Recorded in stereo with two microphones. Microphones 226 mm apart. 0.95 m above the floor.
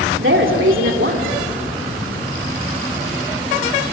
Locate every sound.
0.2 s a woman speaking: 65° right (ahead or behind), 2.5 m